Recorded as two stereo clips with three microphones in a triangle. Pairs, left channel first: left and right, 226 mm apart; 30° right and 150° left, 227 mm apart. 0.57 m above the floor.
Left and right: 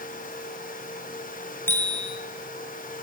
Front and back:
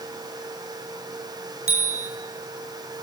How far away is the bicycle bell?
About 7 m.